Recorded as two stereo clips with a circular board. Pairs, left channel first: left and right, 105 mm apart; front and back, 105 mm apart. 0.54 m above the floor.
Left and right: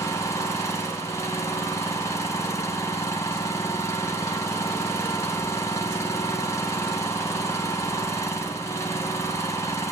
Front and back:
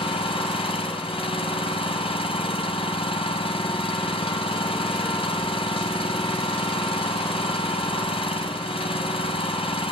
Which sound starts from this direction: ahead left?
An engine running, at 0.0 s.